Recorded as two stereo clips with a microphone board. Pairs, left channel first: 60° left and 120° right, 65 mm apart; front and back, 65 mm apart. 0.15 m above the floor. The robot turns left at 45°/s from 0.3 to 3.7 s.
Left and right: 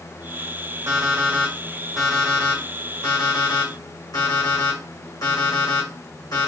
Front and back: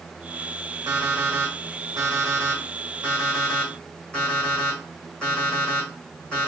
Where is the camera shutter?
I don't hear a camera shutter.